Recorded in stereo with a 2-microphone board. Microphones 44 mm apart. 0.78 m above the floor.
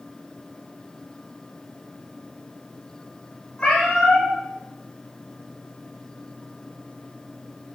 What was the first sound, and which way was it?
A cat meowing, 25° left (ahead or behind).